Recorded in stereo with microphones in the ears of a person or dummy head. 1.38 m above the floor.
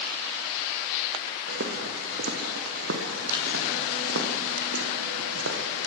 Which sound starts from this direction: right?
Footsteps, at 1.5 s.